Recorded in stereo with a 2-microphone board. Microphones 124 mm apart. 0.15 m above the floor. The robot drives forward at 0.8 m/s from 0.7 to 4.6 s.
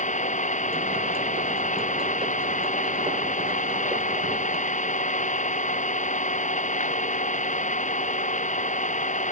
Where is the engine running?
80° left.